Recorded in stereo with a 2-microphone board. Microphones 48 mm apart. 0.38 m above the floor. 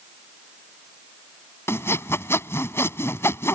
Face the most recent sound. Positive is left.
turn(degrees=60)  # may be behind; listen again after turning